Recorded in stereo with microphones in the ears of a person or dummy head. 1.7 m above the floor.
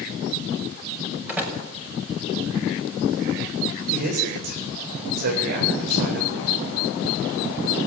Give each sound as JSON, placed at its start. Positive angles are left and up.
{"t": 1.3, "sound": "a door slam", "side_deg": -5, "distance_m": 6.0}
{"t": 3.9, "sound": "a man speaking", "side_deg": -55, "distance_m": 7.5}